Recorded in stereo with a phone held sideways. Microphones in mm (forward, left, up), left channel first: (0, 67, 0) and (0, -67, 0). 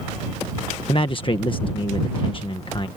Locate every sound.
0.9 s a man speaking: 40° left (ahead or behind)